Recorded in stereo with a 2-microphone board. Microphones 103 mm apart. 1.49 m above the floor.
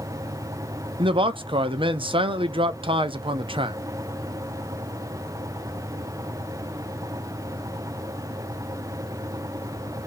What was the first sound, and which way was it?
A man speaking, 50° right (ahead or behind).